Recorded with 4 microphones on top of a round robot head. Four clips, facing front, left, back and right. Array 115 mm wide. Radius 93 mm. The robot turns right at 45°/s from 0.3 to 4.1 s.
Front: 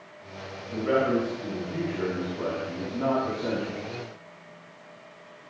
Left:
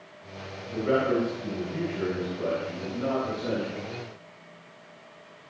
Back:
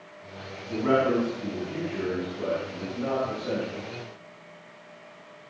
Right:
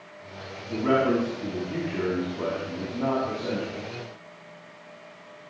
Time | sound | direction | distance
0.7 | a man speaking | 150° right | 6 m